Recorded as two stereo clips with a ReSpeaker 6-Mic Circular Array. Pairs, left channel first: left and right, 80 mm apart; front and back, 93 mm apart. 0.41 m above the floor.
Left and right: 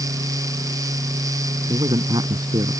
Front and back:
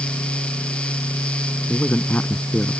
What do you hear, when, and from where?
1.7 s a man speaking: 75° right